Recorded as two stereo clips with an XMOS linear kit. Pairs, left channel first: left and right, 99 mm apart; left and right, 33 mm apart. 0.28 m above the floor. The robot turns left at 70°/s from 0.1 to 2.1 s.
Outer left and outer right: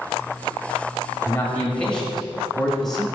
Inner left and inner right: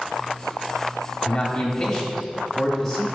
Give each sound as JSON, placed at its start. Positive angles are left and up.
{"t": 1.2, "sound": "a man speaking", "side_deg": 25, "distance_m": 1.0}